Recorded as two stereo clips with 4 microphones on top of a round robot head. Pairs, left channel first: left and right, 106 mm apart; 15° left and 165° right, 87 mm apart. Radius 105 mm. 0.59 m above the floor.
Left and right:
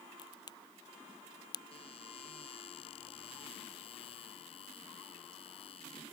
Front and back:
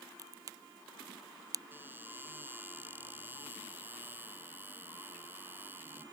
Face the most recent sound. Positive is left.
turn(degrees=130)